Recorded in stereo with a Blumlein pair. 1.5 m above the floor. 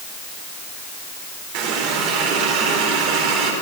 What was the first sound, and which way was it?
A running tap, 45° right.